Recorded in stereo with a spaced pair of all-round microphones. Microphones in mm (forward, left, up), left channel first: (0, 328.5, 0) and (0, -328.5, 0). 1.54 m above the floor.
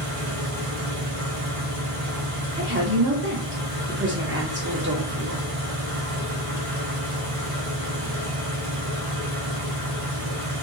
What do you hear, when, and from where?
0.0 s an engine running: 55° right (ahead or behind), 1.0 m
2.6 s a woman speaking: 20° right (ahead or behind), 1.0 m